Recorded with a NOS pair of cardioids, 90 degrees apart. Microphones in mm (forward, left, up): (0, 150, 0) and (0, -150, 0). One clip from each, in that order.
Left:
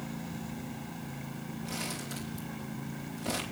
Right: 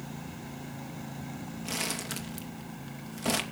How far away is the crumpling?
About 3 m.